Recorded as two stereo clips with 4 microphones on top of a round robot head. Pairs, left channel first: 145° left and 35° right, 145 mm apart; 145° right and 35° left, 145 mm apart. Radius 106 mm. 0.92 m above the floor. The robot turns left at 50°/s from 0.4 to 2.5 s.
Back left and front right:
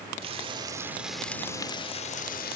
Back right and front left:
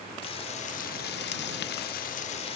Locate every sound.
0.2 s frying: 90° right; by 2.6 s 165° left